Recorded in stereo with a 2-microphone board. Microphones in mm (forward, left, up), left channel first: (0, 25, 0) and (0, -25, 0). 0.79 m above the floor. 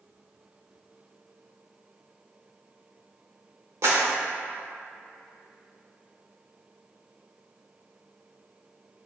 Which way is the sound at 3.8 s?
75° right (ahead or behind).